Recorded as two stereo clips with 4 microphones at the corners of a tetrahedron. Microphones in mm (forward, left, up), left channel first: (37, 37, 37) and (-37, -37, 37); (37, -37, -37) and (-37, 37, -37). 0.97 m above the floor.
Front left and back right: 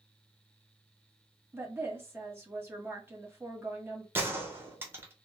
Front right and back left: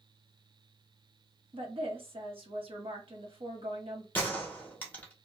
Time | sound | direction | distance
1.5 | a woman speaking | 160° left | 1.0 m
4.2 | a gunshot | 95° right | 0.8 m